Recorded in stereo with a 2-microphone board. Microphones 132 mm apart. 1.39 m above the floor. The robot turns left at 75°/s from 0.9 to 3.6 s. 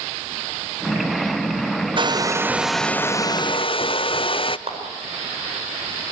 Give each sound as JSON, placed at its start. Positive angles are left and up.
{"t": 2.0, "sound": "a hair dryer", "azimuth_deg": -125, "distance_m": 0.5}
{"t": 4.7, "sound": "a clap", "side_deg": -55, "distance_m": 4.5}